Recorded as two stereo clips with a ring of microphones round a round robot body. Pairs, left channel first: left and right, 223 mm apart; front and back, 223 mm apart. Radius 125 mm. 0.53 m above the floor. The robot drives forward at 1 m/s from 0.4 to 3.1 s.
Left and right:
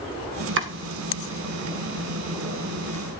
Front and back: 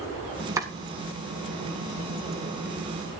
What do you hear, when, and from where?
0.6 s chopping: 105° right, 2.0 m; by 0.7 s 110° right, 2.0 m